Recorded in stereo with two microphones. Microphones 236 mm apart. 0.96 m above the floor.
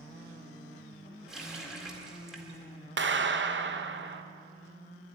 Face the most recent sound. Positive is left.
turn(degrees=-50)  # may be behind; listen again after turning